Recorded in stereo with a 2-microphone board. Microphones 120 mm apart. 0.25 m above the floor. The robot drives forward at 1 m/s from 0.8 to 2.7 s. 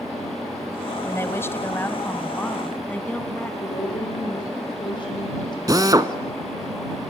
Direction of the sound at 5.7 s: 30° right (ahead or behind).